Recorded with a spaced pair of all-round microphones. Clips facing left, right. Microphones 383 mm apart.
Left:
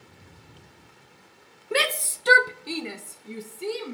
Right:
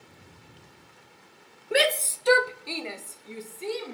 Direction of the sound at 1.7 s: 10° left (ahead or behind).